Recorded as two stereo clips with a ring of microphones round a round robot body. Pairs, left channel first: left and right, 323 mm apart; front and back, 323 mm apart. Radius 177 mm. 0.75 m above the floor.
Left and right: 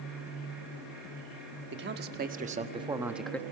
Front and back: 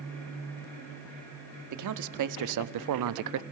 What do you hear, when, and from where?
1.7 s a man speaking: 150° right, 1.2 m; by 3.4 s 170° left, 0.6 m